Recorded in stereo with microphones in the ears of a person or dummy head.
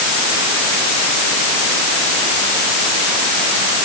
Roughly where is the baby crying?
No baby crying in this recording.